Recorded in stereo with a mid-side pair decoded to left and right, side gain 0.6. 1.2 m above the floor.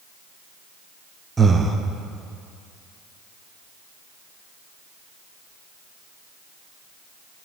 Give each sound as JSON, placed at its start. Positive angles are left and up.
{"t": 1.4, "sound": "breathing", "azimuth_deg": -15, "distance_m": 0.5}